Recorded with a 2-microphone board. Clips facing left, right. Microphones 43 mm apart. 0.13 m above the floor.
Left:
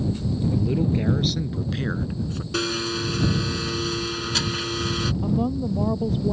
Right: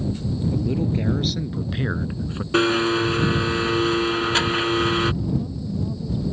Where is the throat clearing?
No throat clearing in this recording.